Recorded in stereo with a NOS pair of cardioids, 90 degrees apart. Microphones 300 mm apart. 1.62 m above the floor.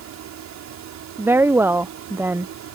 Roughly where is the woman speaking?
Ahead.